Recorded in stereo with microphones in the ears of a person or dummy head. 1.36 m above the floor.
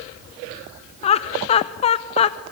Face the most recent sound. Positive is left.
turn(degrees=35)  # may be behind; listen again after turning